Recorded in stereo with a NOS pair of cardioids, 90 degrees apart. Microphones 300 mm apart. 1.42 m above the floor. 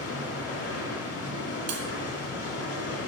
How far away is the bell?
About 1.1 m.